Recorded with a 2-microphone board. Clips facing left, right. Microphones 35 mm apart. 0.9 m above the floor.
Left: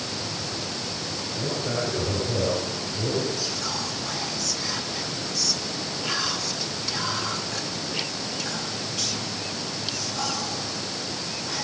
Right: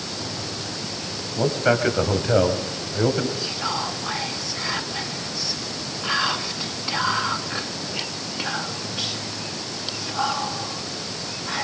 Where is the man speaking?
70° right (ahead or behind), 5 m; by 3.3 s 80° right, 5 m.